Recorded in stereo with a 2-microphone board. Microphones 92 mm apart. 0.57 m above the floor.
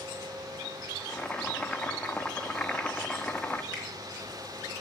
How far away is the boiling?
About 0.7 m.